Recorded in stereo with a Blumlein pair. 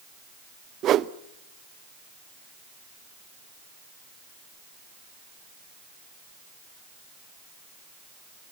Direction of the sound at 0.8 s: 30° right.